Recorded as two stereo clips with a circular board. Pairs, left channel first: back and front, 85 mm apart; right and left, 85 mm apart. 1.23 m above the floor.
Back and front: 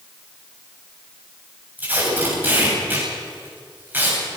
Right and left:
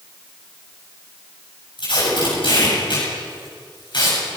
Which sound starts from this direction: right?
Tape being pulled, at 1.8 s.